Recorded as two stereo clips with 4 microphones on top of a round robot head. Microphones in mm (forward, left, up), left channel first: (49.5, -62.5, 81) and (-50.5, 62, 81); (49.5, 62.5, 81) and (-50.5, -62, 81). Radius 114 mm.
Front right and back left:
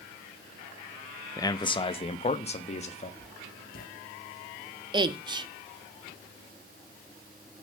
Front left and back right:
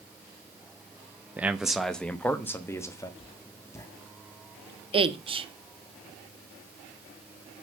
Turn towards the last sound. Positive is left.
turn(degrees=-175)